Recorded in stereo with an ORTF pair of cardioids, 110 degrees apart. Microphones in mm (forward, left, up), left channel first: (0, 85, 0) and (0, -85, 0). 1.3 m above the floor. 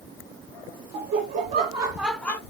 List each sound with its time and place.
0.9 s laughter: 70° right, 0.7 m; by 2.4 s 15° left, 0.6 m